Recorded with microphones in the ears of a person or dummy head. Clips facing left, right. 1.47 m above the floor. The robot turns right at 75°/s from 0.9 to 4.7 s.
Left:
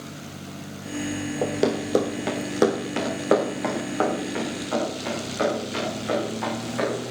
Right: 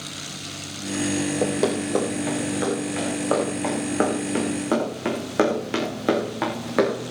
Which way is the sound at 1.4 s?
Centre (ahead or behind).